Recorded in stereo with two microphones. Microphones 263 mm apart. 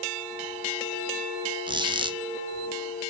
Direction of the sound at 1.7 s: 20° right (ahead or behind).